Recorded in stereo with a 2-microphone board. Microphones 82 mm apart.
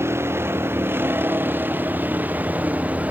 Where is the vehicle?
30° right (ahead or behind); by 3.1 s 20° right (ahead or behind).